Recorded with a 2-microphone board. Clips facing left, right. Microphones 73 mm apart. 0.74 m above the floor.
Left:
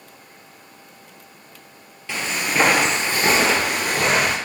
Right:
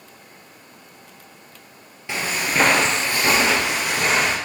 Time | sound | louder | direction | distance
2.1 | footsteps | even | 20° right (ahead or behind) | 0.9 m